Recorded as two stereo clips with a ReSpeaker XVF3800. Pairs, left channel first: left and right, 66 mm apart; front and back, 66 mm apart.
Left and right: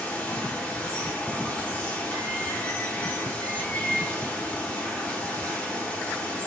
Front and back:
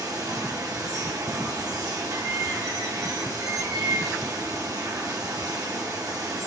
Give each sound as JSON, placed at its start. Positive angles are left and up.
{"t": 0.0, "sound": "running water", "azimuth_deg": 155, "distance_m": 1.0}